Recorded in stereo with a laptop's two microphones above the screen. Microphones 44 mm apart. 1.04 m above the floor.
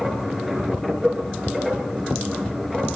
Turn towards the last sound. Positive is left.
turn(degrees=0)  # may be behind; listen again after turning